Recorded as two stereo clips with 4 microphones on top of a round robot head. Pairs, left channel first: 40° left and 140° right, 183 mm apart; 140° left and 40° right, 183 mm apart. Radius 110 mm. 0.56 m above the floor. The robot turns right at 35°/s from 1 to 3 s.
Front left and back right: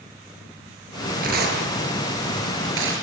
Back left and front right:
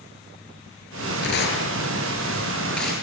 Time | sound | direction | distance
1.2 | tearing paper | 170° left | 8 m